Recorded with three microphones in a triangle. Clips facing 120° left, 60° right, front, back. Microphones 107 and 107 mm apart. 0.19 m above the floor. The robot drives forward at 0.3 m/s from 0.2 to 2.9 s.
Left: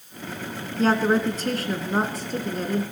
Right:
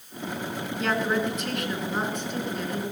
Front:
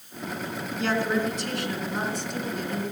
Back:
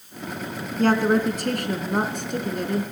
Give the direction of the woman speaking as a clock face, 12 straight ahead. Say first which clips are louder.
Left 6 dB, back 6 dB; 7 o'clock.